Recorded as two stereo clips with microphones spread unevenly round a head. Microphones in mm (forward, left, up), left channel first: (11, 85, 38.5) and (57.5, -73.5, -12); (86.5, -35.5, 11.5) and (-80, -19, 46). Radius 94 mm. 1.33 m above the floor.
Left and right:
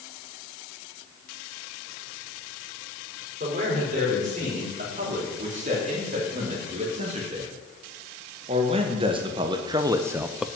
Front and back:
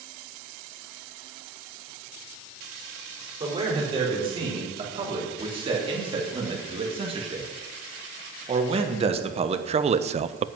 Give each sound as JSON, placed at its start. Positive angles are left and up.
{"t": 3.4, "sound": "a man speaking", "azimuth_deg": -125, "distance_m": 5.0}